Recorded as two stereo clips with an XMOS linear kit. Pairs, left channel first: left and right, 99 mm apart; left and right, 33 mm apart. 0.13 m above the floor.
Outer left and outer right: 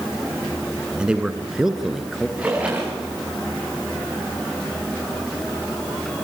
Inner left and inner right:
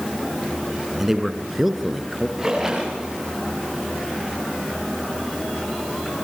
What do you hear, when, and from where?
1.0 s a man speaking: 10° right (ahead or behind), 1.8 m; by 2.3 s centre (ahead or behind), 2.5 m
2.4 s a splash: 15° right (ahead or behind), 9.5 m